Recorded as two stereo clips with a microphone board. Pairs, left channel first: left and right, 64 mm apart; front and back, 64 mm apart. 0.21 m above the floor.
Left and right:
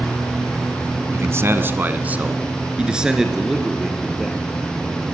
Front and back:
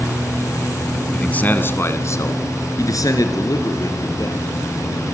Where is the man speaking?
70° right, 1.7 m; by 5.0 s straight ahead, 5 m.